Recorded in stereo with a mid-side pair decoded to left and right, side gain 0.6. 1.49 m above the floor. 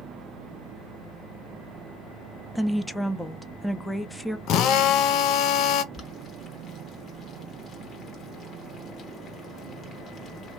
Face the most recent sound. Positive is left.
turn(degrees=40)